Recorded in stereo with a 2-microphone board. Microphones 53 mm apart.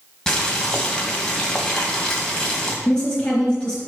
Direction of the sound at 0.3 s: 10° left (ahead or behind).